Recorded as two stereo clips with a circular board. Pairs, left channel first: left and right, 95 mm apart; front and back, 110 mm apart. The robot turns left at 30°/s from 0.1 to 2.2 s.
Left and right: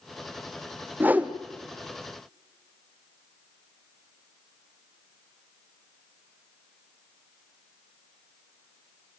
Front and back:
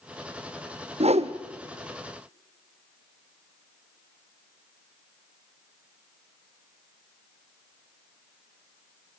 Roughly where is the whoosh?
Behind.